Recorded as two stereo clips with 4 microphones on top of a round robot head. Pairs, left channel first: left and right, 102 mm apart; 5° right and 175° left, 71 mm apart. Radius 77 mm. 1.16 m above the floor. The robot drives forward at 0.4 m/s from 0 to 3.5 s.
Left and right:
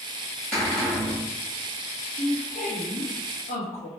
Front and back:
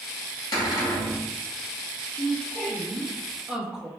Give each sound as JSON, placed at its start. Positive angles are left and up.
{"t": 0.5, "sound": "a cupboard door", "azimuth_deg": 5, "distance_m": 1.9}
{"t": 2.1, "sound": "a woman speaking", "azimuth_deg": 70, "distance_m": 1.3}